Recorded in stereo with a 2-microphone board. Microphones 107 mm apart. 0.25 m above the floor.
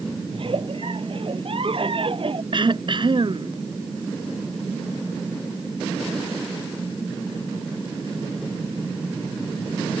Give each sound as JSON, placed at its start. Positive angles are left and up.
{"t": 0.3, "sound": "a giggle", "side_deg": -55}
{"t": 2.5, "sound": "throat clearing", "side_deg": -50}